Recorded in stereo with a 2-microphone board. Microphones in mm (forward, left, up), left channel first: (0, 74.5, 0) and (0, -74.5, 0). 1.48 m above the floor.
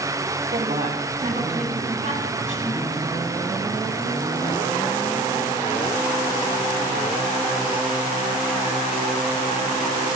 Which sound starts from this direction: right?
A woman speaking, at 0.5 s.